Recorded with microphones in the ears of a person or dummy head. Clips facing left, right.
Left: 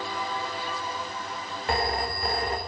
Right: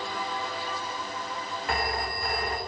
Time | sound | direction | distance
1.7 | a phone ringing | 30° left (ahead or behind) | 1.1 m